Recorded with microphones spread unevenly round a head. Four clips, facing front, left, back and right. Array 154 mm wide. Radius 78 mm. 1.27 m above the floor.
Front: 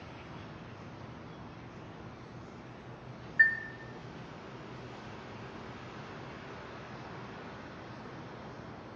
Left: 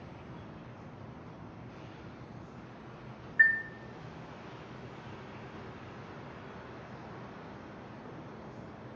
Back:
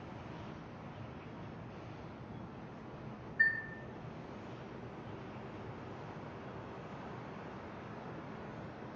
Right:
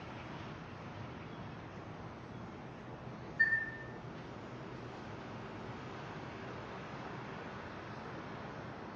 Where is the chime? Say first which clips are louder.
Left 7 dB, front 6 dB; 115° left, 0.6 m.